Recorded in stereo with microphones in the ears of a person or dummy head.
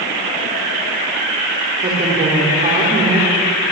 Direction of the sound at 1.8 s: 30° right (ahead or behind).